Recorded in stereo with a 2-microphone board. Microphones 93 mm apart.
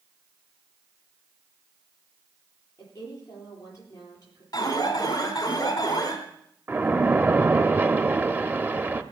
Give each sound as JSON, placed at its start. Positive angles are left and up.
{"t": 2.8, "sound": "a woman speaking", "side_deg": 35, "distance_m": 7.5}
{"t": 4.5, "sound": "an alarm", "side_deg": 45, "distance_m": 3.0}
{"t": 6.7, "sound": "a splash", "side_deg": -25, "distance_m": 0.7}